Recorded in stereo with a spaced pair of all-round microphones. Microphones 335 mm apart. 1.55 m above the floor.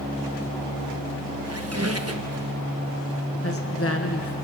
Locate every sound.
1.4 s a squeak: 45° right (ahead or behind), 1.1 m
3.4 s a woman speaking: 40° left (ahead or behind), 1.3 m